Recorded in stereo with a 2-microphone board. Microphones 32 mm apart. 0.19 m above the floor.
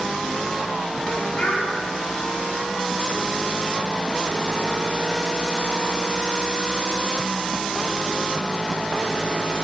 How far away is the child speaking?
About 1.3 m.